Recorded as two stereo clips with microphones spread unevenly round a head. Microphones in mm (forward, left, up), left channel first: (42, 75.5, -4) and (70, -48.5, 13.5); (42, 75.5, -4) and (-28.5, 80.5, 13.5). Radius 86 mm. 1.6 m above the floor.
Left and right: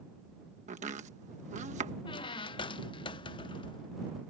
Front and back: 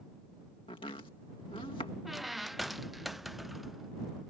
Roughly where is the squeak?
Behind left.